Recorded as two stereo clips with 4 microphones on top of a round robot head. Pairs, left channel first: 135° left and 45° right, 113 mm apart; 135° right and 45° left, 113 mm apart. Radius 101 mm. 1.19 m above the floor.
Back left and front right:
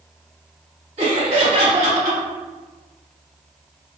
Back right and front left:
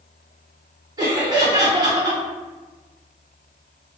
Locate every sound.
1.0 s laughter: 10° right, 1.6 m